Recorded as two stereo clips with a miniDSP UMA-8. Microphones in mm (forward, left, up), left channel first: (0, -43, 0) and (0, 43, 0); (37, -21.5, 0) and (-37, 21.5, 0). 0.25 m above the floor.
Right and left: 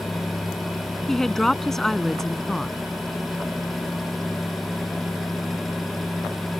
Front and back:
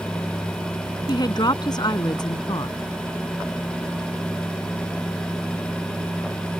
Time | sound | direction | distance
1.1 | a woman speaking | 5° right | ?